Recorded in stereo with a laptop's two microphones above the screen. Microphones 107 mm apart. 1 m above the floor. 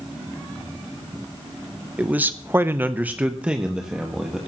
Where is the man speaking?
10° right (ahead or behind), 0.7 m; by 4.4 s 5° right (ahead or behind), 1.8 m.